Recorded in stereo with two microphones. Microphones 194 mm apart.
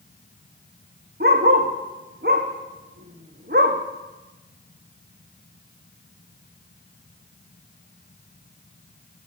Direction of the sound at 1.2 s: 55° right (ahead or behind).